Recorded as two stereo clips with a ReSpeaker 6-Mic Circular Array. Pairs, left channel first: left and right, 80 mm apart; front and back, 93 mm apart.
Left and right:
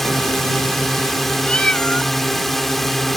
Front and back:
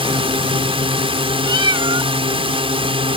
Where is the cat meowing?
165° left.